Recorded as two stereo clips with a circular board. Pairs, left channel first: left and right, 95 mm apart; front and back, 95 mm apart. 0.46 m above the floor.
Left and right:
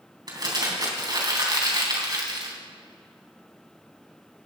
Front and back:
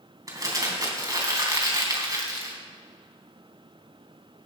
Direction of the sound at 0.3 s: 130° right.